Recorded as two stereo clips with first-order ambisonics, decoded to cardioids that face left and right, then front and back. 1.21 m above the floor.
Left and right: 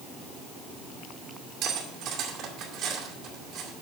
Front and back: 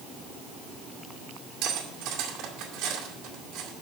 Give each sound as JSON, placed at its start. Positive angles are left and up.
{"t": 1.6, "sound": "cutlery clinking", "azimuth_deg": -135, "distance_m": 2.5}